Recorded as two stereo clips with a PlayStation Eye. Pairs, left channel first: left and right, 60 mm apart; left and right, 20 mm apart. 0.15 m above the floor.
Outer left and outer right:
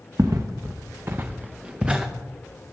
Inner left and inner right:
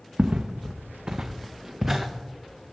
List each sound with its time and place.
0.2 s footsteps: 70° right (ahead or behind), 0.8 m; by 2.1 s 10° right (ahead or behind), 1.0 m